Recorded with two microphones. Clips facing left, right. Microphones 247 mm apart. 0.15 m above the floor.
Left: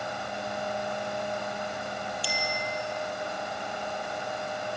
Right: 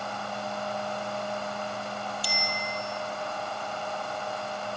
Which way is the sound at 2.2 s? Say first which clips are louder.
Left 1 dB; 45° right (ahead or behind).